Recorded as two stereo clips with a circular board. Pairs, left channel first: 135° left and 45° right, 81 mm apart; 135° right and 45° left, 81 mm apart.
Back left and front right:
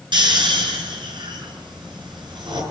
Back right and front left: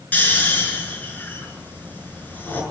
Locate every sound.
0.1 s snoring: 65° right, 5.5 m